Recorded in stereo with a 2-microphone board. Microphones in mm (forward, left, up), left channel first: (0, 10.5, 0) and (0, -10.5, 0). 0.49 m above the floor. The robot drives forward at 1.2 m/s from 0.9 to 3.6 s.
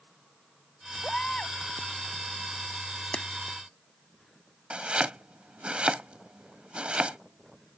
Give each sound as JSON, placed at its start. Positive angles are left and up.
{"t": 1.0, "sound": "a baby crying", "side_deg": 45}
{"t": 3.1, "sound": "a clap", "side_deg": 65}
{"t": 4.7, "sound": "chopping", "side_deg": -70}